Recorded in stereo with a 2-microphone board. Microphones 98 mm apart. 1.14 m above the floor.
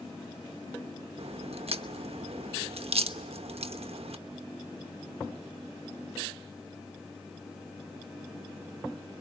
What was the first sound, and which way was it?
A crack, 75° right (ahead or behind).